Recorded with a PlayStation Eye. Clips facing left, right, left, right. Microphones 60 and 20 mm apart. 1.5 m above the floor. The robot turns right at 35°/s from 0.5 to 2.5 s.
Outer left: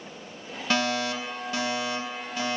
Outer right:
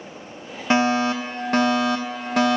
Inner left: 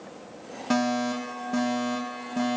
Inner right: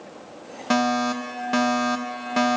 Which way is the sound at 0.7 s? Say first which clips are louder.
Outer right 7 dB, inner right 4 dB; 155° right.